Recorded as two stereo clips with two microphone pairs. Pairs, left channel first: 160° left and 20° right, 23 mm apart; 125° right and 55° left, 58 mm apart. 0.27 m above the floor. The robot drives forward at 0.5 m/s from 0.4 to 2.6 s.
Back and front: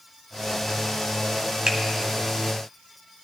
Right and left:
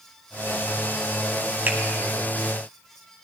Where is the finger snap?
5° left, 1.5 m.